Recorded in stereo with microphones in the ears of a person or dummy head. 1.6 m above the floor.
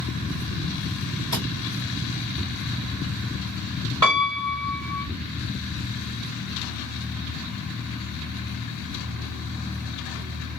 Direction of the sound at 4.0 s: 20° right (ahead or behind).